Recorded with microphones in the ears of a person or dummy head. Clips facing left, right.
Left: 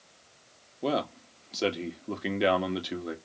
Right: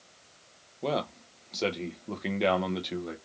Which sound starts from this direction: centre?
A man speaking, at 0.8 s.